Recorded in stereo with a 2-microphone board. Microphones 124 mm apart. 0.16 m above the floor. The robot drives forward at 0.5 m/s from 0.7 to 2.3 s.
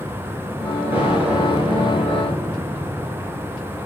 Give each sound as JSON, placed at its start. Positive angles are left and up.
{"t": 0.9, "sound": "an explosion", "side_deg": -15, "distance_m": 7.0}